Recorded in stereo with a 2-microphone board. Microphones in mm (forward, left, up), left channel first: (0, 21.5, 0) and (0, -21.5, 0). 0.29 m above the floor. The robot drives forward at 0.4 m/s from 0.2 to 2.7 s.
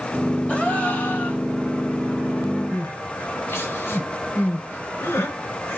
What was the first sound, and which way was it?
A gasp, 35° left (ahead or behind).